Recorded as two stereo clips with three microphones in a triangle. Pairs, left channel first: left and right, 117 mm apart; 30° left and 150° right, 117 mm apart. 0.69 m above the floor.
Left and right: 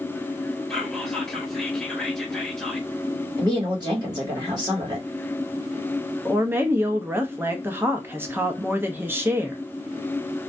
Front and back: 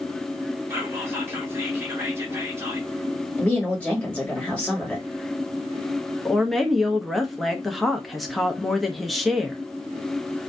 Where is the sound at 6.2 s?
60° right, 0.5 m.